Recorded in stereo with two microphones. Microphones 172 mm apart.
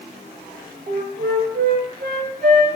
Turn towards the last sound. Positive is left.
turn(degrees=-65)  # may be behind; listen again after turning